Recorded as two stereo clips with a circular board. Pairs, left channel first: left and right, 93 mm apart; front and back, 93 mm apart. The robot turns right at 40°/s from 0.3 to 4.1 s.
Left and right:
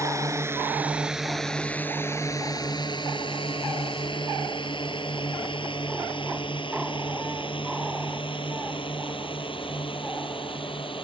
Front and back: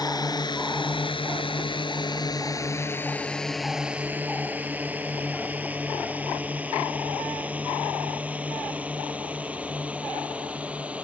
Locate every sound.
0.0 s a drone: 35° right; by 11.1 s 105° left